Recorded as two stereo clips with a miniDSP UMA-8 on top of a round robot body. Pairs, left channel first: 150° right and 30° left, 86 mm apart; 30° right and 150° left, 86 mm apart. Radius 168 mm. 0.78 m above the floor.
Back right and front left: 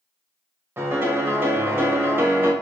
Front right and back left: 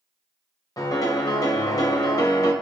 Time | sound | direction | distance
0.8 | a piano | 25° right | 1.2 m